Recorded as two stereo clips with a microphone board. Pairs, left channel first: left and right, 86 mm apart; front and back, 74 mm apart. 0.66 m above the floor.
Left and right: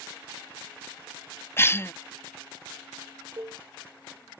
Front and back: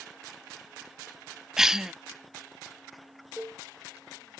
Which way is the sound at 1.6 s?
100° left.